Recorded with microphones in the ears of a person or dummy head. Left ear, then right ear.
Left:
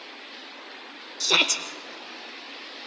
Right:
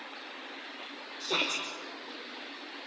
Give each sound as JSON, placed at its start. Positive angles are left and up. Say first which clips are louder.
{"t": 1.2, "sound": "a shout", "louder": "left 9 dB", "side_deg": 65, "distance_m": 1.0}